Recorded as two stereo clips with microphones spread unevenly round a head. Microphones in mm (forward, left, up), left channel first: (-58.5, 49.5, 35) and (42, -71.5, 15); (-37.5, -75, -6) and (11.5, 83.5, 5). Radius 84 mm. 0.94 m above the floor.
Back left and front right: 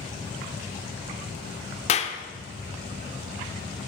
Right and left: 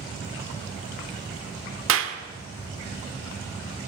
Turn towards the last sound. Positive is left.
turn(degrees=75)